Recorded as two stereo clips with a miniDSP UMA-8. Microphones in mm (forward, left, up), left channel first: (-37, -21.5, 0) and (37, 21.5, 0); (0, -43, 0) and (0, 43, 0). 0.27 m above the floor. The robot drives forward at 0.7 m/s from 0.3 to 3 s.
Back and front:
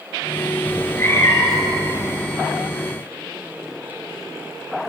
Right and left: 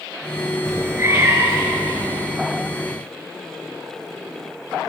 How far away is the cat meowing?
About 1.7 m.